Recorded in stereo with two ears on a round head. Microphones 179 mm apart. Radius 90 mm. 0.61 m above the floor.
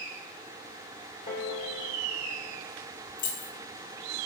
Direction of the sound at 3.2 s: 40° left (ahead or behind).